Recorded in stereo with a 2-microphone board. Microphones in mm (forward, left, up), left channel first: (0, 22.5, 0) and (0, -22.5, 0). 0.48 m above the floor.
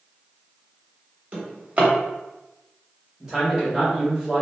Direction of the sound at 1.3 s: 35° right (ahead or behind).